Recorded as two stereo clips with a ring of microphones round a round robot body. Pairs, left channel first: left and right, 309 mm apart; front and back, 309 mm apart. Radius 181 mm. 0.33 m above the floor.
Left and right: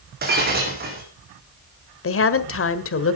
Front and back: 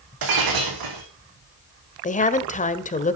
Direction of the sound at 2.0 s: 60° left.